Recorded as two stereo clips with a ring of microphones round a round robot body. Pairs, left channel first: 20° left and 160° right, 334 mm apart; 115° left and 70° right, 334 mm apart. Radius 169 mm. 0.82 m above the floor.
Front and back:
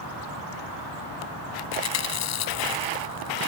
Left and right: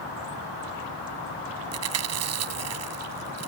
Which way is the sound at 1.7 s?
20° right.